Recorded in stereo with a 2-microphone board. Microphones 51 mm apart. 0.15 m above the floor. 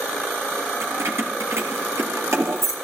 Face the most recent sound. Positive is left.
turn(degrees=-65)  # may be behind; listen again after turning